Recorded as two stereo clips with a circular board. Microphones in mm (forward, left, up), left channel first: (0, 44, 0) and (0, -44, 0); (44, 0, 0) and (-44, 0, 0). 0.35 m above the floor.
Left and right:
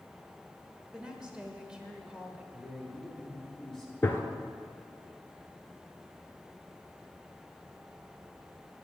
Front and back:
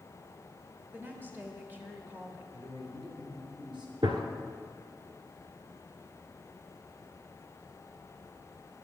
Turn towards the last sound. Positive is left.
turn(degrees=155)